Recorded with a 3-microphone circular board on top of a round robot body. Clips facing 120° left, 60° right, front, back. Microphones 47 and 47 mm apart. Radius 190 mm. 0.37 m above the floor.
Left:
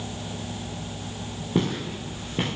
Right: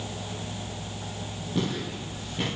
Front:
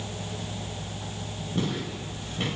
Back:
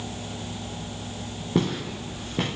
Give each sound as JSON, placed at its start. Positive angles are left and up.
{"t": 1.6, "sound": "footsteps", "azimuth_deg": 170, "distance_m": 4.5}